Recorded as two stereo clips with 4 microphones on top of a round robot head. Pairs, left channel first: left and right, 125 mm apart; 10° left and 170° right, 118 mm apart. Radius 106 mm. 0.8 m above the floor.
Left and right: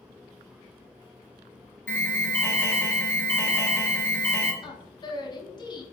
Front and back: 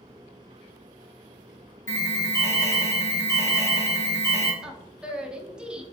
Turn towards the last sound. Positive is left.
turn(degrees=110)